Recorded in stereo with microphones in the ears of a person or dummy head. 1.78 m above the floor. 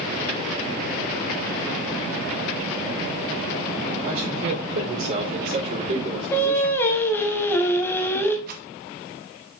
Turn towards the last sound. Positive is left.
turn(degrees=-55)  # may be behind; listen again after turning